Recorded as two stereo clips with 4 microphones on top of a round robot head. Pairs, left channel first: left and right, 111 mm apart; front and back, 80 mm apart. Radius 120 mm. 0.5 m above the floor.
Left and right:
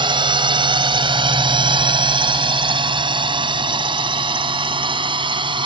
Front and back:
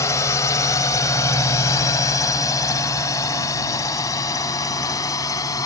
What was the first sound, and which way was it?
A drone, 50° right.